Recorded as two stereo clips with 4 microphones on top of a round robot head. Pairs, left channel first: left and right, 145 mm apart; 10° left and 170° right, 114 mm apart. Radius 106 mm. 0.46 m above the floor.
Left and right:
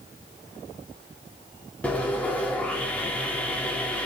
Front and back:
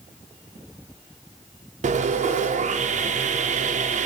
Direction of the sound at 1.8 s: 175° left.